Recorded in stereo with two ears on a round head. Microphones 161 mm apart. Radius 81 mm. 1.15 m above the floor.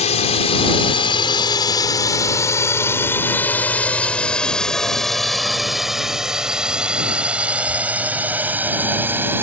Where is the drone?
40° left (ahead or behind); by 9.4 s 15° right (ahead or behind).